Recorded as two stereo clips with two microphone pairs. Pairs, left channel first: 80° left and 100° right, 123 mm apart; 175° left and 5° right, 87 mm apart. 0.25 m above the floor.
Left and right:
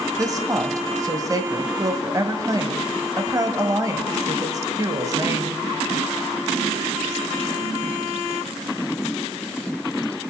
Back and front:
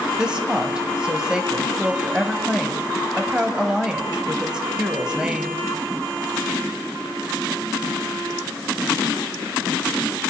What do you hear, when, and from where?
0.2 s a woman speaking: 80° right, 1.0 m